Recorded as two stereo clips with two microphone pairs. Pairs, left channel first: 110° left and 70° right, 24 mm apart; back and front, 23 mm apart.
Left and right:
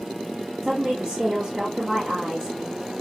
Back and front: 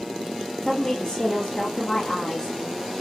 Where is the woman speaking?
110° right, 2 m.